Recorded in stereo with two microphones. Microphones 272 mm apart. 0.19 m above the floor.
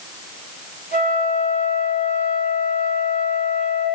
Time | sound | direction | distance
0.9 | a flute | 30° left (ahead or behind) | 1.8 m